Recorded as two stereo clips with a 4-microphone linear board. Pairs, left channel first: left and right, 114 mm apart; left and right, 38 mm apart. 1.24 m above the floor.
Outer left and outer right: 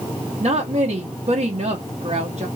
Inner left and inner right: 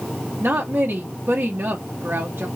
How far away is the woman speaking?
About 0.9 m.